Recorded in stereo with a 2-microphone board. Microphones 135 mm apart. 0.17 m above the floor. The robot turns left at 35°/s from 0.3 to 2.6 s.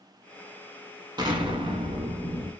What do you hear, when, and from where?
1.2 s an explosion: 45° right, 0.6 m; by 2.5 s 95° right, 0.6 m